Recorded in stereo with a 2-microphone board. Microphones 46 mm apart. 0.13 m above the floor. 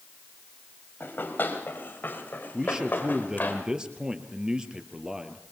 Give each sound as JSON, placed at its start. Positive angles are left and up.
{"t": 1.0, "sound": "running footsteps", "side_deg": 45, "distance_m": 5.5}
{"t": 2.5, "sound": "a man speaking", "side_deg": -15, "distance_m": 2.0}